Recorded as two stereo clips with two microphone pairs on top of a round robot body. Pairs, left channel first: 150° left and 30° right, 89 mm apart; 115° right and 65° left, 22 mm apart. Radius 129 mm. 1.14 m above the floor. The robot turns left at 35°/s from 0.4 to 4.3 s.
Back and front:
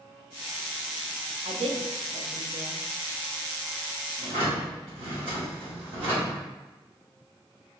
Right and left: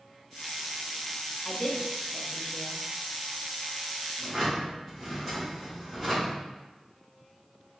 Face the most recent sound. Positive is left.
turn(degrees=-20)